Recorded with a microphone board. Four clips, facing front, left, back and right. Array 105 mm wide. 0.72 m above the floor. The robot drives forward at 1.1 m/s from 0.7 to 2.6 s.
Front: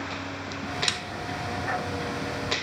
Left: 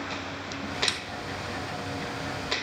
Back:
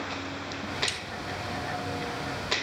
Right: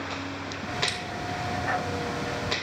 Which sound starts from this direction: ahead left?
A snare drum, at 0.9 s.